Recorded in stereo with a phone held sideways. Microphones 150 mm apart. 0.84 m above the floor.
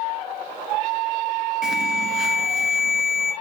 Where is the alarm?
5° right (ahead or behind), 0.6 m.